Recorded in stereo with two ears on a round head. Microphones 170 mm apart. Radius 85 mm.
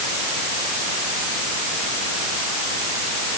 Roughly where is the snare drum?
No snare drum in this recording.